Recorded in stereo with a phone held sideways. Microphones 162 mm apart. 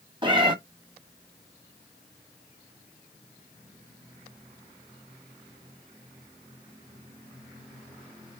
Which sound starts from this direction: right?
A cat meowing, at 0.2 s.